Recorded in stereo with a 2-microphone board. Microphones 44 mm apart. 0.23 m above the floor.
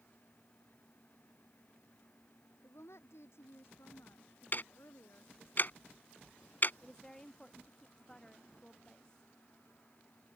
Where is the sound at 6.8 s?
15° left (ahead or behind).